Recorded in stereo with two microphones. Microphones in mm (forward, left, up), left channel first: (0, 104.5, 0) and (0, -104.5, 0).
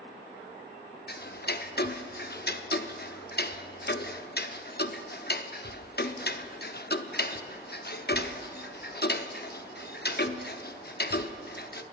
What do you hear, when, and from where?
1.1 s ticking: 55° left (ahead or behind), 0.5 m